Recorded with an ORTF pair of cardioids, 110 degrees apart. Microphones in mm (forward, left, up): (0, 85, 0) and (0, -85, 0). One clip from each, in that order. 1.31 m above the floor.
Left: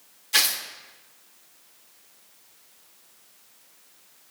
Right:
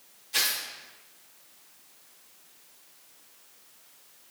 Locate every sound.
0.3 s tearing paper: 55° left, 0.7 m